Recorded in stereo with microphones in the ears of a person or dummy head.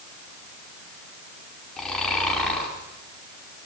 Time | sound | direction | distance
1.8 | snoring | 5° left (ahead or behind) | 6.5 m